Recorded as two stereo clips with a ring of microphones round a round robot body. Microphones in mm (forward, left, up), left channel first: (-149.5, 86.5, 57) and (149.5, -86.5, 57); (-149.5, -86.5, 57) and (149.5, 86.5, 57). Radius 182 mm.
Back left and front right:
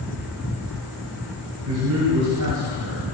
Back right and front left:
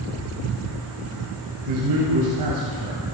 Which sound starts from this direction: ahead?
A man speaking, at 1.7 s.